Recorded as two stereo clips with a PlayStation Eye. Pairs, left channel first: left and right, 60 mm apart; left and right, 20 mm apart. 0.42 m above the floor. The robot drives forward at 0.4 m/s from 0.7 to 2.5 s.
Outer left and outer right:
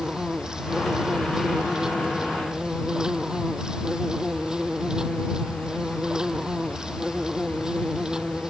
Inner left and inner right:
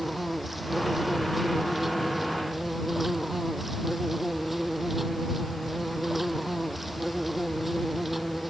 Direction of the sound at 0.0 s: 10° right (ahead or behind).